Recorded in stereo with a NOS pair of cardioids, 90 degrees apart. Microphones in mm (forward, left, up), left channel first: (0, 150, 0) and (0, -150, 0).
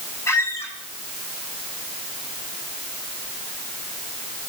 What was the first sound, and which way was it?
A squeak, 10° left.